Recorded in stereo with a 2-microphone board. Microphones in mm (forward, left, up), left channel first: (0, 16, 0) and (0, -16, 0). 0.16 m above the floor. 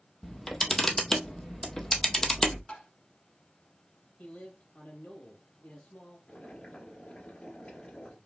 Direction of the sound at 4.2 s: 60° left (ahead or behind).